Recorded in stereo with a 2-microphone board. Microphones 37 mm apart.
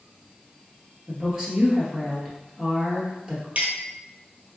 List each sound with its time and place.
1.1 s a woman speaking: 20° right (ahead or behind), 1.7 m
3.5 s a clink: 45° right (ahead or behind), 1.4 m